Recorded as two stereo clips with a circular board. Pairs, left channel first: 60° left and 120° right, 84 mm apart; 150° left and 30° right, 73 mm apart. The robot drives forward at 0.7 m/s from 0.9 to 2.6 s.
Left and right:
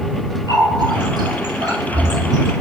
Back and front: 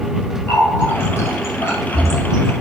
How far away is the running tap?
About 2.5 m.